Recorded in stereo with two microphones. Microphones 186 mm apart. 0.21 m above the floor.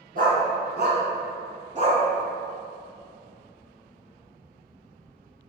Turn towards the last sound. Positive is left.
turn(degrees=-35)  # may be behind; listen again after turning